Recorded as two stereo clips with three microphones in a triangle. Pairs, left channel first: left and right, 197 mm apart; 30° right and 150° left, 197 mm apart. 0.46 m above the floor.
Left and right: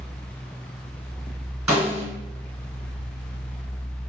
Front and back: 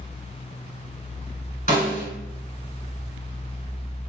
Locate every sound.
1.7 s a snare drum: 20° right, 1.6 m